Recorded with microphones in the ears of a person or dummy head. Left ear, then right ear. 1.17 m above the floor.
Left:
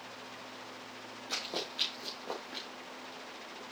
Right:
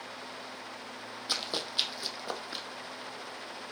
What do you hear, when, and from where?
1.3 s running footsteps: 50° right (ahead or behind), 2.5 m; by 2.6 s 40° right (ahead or behind), 3 m